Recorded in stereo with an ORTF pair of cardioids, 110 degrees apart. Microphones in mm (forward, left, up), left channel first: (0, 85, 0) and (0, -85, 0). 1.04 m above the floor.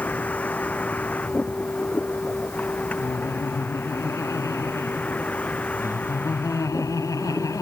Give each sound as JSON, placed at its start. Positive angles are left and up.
{"t": 0.0, "sound": "a vehicle", "azimuth_deg": 10}
{"t": 3.0, "sound": "laughter", "azimuth_deg": 20}